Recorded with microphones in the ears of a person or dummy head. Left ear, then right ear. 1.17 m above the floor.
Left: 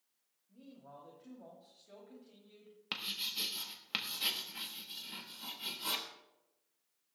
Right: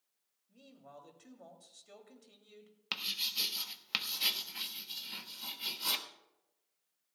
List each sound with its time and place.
0.5 s a man speaking: 80° right, 2.5 m
2.9 s writing: 15° right (ahead or behind), 0.9 m